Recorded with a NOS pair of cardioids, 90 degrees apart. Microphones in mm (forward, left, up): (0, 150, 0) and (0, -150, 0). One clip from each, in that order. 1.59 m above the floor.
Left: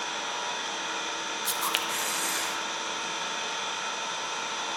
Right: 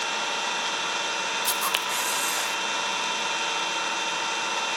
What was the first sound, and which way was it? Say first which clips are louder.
An engine running: right 5 dB; 50° right.